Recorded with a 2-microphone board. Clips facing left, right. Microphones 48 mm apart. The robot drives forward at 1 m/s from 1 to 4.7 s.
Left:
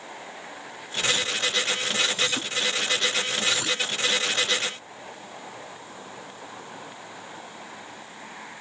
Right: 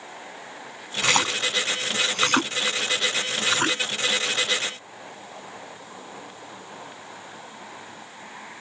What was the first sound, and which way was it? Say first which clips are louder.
A splash: right 4 dB; 75° right (ahead or behind).